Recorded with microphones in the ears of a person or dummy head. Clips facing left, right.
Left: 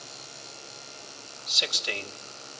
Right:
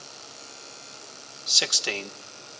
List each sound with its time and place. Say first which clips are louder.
1.5 s a man speaking: right 3 dB; 65° right (ahead or behind), 1.4 m